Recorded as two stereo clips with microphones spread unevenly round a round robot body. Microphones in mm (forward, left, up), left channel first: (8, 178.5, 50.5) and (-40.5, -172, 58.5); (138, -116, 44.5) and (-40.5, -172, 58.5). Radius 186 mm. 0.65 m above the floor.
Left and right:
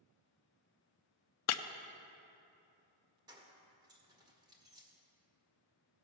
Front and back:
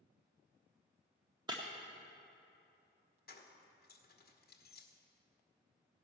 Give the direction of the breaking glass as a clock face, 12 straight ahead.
8 o'clock.